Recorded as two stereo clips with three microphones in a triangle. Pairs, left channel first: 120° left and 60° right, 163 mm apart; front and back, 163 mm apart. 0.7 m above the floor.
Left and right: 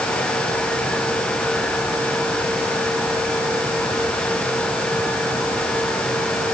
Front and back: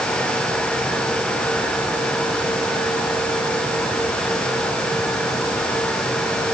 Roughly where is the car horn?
I don't hear a car horn.